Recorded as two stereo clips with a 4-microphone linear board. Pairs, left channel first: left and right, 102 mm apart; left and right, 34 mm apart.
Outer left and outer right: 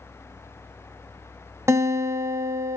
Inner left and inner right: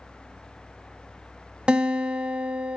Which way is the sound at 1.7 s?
30° right (ahead or behind).